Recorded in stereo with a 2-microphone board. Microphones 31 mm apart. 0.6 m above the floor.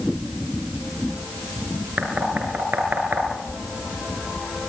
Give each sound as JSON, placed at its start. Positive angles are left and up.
{"t": 2.0, "sound": "knocking", "side_deg": -70, "distance_m": 6.0}